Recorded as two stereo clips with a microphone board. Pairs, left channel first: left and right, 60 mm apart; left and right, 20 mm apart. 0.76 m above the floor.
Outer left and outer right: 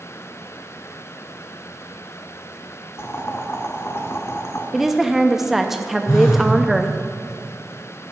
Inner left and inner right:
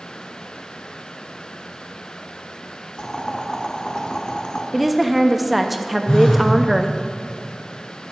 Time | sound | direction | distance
3.0 | boiling | 55° left (ahead or behind) | 1.0 m
4.7 | a woman speaking | 5° right (ahead or behind) | 0.5 m
6.1 | a phone buzzing | 70° left (ahead or behind) | 1.9 m